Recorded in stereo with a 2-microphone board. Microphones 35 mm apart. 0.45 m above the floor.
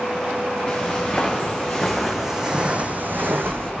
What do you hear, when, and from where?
0.7 s footsteps: 15° left (ahead or behind), 3 m; by 3.7 s 75° right (ahead or behind), 1.4 m